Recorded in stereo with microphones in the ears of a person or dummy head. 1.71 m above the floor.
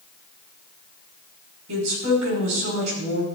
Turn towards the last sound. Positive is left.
turn(degrees=-75)  # may be behind; listen again after turning